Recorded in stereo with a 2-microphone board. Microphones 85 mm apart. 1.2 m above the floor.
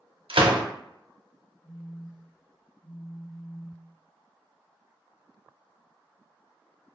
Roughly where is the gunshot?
Right.